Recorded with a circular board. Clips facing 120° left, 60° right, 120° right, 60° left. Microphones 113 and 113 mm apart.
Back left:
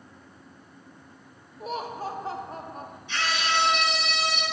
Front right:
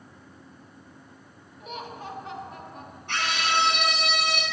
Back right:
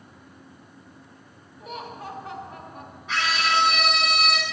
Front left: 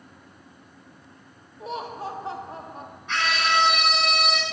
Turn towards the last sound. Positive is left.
turn(degrees=-30)